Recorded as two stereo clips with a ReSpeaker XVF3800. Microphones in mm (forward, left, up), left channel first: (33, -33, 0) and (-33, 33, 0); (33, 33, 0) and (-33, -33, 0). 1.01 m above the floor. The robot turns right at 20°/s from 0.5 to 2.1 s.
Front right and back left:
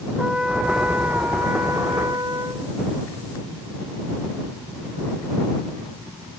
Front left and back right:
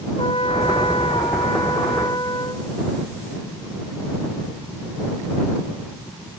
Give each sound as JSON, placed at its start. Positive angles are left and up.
{"t": 0.2, "sound": "a trumpet", "azimuth_deg": 55}